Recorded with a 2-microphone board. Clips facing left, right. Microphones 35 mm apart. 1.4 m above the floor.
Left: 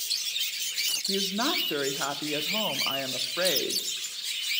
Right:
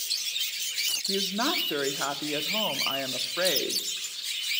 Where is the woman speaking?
Centre (ahead or behind), 0.6 m.